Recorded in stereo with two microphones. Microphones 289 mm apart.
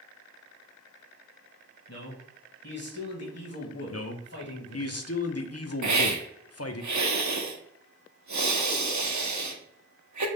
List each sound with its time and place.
1.9 s a man speaking: 60° left (ahead or behind), 1.6 m
3.9 s a man speaking: 55° left (ahead or behind), 0.6 m
5.8 s a hiss: 75° right (ahead or behind), 0.6 m